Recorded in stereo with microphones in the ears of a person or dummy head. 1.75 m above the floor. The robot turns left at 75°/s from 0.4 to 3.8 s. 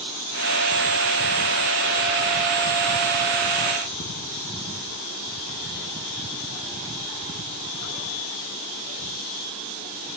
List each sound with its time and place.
Only background noise.